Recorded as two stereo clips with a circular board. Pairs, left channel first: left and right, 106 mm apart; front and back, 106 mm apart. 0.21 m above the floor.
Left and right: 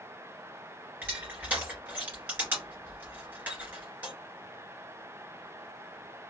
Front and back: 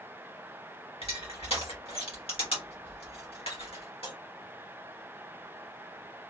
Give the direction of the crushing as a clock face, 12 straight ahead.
1 o'clock.